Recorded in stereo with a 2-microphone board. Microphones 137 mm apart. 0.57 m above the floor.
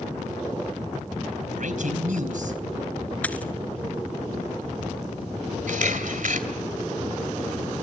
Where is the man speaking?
65° right (ahead or behind), 3.5 m.